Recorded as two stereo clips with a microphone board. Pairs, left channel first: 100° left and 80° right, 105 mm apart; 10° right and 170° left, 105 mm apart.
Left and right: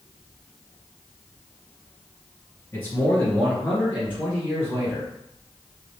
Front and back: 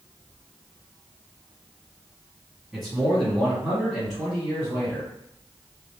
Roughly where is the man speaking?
Left.